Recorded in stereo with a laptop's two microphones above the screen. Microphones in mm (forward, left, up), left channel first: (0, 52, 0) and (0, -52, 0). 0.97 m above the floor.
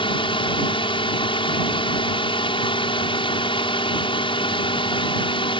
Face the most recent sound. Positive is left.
turn(degrees=60)  # may be behind; listen again after turning